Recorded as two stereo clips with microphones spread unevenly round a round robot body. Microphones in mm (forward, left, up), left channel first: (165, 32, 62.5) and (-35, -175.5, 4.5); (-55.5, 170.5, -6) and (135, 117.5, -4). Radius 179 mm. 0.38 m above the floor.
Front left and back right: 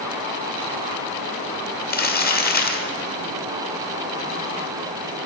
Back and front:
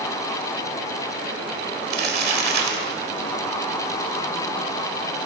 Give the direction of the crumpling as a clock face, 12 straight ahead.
12 o'clock.